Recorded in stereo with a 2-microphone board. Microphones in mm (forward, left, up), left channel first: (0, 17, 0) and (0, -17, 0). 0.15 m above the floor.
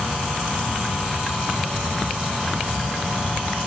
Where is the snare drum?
No snare drum in this recording.